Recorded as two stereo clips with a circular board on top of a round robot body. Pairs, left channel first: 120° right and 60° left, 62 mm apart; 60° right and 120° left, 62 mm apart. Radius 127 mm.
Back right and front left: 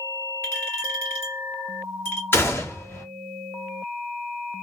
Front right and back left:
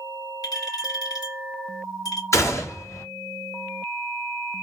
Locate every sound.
0.4 s a clink: 75° right, 2 m
2.3 s a gunshot: 75° right, 1.7 m